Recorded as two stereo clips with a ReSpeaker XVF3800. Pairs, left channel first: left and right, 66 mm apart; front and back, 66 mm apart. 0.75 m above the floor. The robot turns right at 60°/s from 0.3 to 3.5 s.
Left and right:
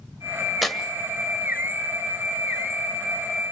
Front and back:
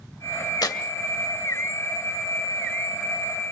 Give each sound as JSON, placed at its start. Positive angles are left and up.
{"t": 0.6, "sound": "tearing paper", "azimuth_deg": 0, "distance_m": 1.7}